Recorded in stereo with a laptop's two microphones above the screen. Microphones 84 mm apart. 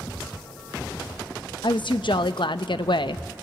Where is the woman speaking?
70° left (ahead or behind), 0.7 m.